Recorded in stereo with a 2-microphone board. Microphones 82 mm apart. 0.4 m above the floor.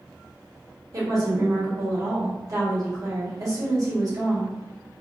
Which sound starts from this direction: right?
A woman speaking, at 0.9 s.